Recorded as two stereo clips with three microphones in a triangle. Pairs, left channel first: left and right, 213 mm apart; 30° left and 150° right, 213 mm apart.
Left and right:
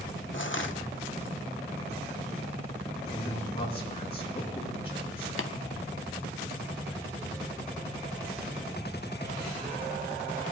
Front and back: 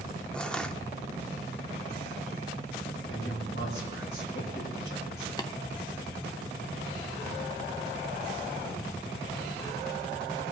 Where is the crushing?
115° left, 0.7 m.